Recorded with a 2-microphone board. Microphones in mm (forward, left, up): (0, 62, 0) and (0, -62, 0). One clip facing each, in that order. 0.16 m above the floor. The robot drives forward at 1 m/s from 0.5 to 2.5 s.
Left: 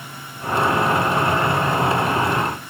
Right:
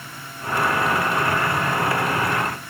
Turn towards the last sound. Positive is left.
No sound to turn to.